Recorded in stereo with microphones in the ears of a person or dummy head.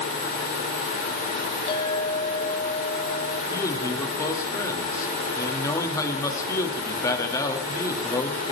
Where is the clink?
35° left (ahead or behind), 3.5 m.